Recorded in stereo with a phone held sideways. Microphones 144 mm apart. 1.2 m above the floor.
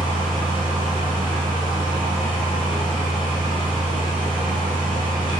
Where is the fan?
35° left (ahead or behind), 1.1 m.